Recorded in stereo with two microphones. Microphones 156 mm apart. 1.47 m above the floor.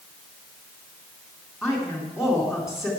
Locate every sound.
1.6 s a woman speaking: 5° right (ahead or behind), 3.5 m